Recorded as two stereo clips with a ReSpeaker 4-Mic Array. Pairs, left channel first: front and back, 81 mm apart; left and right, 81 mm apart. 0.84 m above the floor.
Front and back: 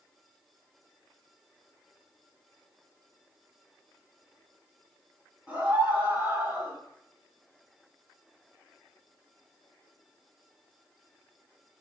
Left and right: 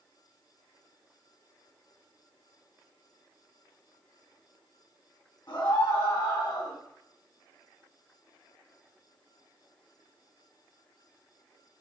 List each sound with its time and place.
5.5 s a scream: 105° left, 5.5 m; by 6.8 s 115° left, 4.5 m